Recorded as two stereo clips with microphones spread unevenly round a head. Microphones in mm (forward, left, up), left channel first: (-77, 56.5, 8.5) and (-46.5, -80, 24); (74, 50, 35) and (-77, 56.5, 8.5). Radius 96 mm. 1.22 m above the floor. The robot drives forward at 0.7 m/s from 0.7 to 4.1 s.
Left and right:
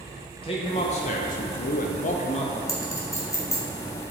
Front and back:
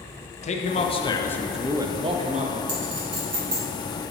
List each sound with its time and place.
0.4 s a man speaking: 45° left, 0.8 m; by 2.6 s 145° left, 1.0 m
2.7 s a clink: 170° left, 1.7 m; by 4.1 s 175° left, 2.5 m